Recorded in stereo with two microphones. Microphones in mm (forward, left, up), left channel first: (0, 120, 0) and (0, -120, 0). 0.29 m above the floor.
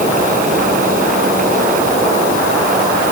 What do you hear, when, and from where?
Only background noise.